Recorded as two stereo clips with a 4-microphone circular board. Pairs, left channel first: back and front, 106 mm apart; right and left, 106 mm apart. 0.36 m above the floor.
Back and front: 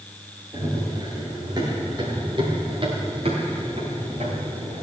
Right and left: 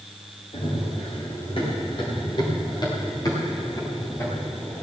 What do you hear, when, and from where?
0.5 s running footsteps: 60° right, 6 m; by 4.8 s 20° right, 5 m